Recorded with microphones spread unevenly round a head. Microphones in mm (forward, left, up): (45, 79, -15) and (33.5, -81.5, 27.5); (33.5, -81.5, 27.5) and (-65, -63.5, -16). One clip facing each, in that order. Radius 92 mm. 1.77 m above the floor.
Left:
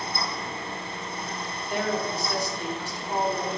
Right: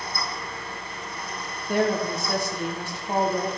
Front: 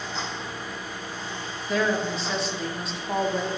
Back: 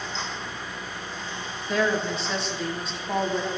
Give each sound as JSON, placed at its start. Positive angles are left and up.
{"t": 0.0, "sound": "a fan", "azimuth_deg": 15, "distance_m": 1.1}
{"t": 1.7, "sound": "a woman speaking", "azimuth_deg": -85, "distance_m": 1.1}